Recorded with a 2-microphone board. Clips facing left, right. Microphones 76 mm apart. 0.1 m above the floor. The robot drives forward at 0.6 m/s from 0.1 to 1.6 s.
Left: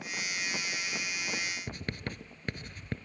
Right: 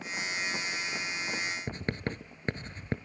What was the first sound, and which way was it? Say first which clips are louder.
Writing: right 4 dB; 30° right (ahead or behind).